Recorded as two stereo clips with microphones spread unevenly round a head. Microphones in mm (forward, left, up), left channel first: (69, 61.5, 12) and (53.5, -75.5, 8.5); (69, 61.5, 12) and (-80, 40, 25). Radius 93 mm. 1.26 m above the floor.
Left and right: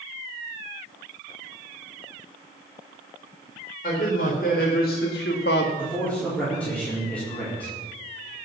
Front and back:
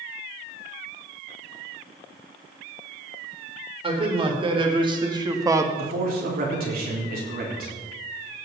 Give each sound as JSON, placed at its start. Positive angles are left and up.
{"t": 3.8, "sound": "a man speaking", "azimuth_deg": 135, "distance_m": 3.5}
{"t": 5.8, "sound": "a man speaking", "azimuth_deg": 165, "distance_m": 4.0}